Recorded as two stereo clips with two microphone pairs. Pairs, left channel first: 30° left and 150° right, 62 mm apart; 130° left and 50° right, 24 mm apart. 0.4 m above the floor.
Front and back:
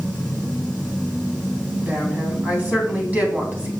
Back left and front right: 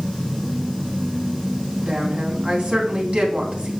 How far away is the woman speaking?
About 3 m.